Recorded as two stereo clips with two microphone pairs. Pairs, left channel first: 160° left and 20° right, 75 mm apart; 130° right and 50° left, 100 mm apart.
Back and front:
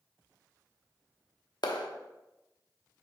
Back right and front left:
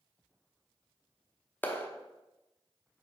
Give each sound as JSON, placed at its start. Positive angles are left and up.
{"t": 1.6, "sound": "a clap", "azimuth_deg": 160, "distance_m": 0.8}